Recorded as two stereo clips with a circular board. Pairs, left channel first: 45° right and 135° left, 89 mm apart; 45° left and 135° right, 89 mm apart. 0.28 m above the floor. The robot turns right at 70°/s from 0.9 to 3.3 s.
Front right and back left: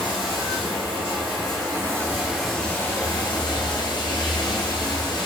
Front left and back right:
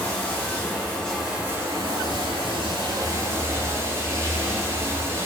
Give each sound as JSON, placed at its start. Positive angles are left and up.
{"t": 0.0, "sound": "running water", "azimuth_deg": 115, "distance_m": 5.5}